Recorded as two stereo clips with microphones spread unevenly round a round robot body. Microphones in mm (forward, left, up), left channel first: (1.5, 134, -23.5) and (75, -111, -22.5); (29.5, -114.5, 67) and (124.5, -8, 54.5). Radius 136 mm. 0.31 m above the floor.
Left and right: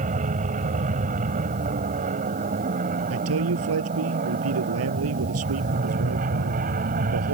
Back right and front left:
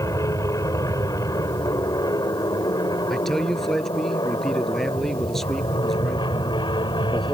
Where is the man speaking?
45° right.